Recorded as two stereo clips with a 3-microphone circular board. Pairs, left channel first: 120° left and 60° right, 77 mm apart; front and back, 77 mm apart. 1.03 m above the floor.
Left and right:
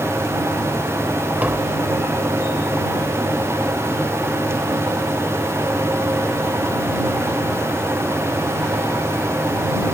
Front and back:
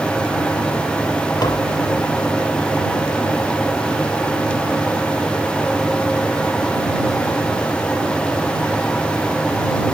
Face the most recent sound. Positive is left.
turn(degrees=5)